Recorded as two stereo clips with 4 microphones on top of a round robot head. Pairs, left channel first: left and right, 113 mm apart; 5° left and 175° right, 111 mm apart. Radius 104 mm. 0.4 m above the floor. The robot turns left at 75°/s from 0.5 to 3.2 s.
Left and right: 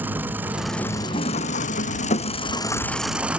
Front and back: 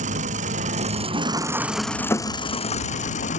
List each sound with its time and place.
0.0 s an engine running: 165° right; by 3.4 s 10° right